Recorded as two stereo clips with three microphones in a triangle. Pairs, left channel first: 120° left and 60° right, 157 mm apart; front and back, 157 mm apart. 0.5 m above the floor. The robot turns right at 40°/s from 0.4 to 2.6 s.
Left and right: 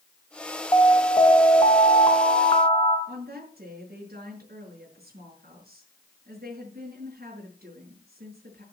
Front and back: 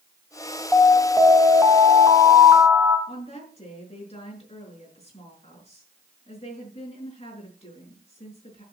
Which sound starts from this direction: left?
An alarm, at 0.7 s.